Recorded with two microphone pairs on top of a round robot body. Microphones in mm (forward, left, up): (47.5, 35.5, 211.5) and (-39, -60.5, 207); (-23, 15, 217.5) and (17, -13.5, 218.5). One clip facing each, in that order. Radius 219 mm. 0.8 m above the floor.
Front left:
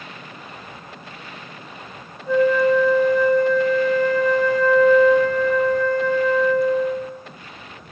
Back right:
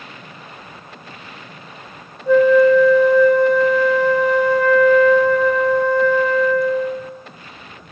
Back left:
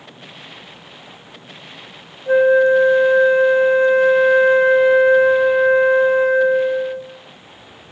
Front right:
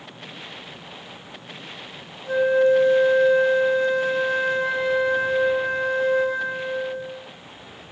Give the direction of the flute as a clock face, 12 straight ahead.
5 o'clock.